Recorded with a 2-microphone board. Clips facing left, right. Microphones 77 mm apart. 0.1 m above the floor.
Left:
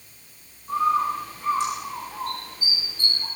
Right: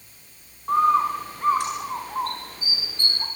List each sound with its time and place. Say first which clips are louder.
0.7 s a bird: right 3 dB; 60° right (ahead or behind), 8.5 m